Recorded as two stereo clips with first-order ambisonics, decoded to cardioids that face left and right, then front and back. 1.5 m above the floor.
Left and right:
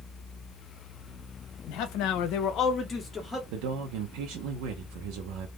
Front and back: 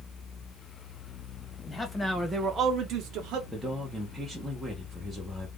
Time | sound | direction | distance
1.7 | a man speaking | 75° left | 0.8 m
3.5 | a man speaking | 90° right | 0.6 m